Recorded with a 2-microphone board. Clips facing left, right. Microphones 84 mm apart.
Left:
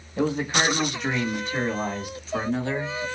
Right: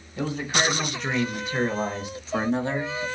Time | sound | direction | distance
0.2 | a man speaking | 25° left (ahead or behind) | 1.3 m